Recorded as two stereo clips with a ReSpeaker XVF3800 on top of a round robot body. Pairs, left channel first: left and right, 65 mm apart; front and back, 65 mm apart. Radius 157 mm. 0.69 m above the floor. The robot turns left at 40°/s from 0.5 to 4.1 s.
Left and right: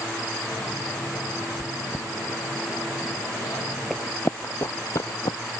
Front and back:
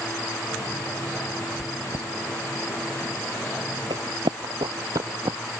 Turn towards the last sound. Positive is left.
turn(degrees=135)